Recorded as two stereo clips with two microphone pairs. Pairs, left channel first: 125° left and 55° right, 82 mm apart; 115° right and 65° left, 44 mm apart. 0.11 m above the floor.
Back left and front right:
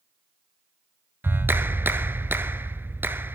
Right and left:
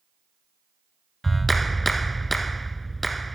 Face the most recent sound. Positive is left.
turn(degrees=-30)